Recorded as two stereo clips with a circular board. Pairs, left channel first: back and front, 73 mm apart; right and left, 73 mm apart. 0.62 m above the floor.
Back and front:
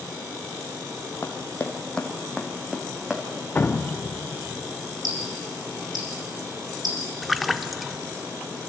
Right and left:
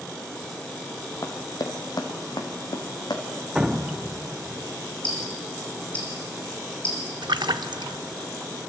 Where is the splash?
90° left, 0.6 m.